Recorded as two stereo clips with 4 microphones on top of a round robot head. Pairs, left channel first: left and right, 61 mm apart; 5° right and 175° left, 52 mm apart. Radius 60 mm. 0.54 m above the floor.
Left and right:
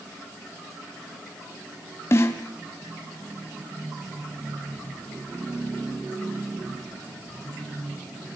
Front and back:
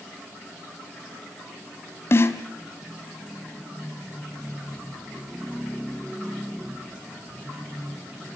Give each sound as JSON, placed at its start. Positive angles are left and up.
{"t": 2.1, "sound": "a snare drum", "azimuth_deg": 35, "distance_m": 2.0}